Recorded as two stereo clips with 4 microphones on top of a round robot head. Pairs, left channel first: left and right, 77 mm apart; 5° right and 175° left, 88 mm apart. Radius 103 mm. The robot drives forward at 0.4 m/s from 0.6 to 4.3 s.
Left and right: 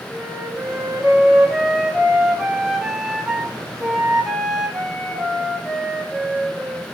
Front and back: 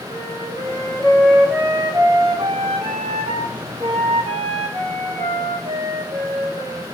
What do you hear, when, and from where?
0.1 s a flute: 20° right, 0.9 m; by 6.8 s 175° right, 1.4 m